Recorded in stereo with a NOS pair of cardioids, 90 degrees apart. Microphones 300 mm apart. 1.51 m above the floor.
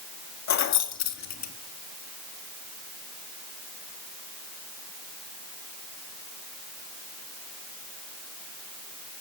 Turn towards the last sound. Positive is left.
turn(degrees=65)